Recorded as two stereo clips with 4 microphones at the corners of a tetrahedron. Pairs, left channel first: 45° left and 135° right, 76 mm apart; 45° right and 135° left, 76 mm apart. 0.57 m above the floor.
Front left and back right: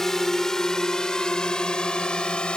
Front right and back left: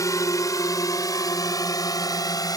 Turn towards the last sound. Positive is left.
turn(degrees=-30)